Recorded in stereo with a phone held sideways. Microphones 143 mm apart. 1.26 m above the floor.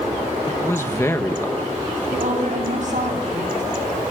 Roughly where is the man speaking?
Centre.